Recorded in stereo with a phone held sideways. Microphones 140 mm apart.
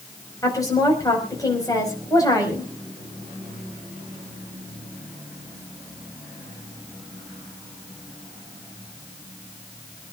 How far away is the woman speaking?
About 5 m.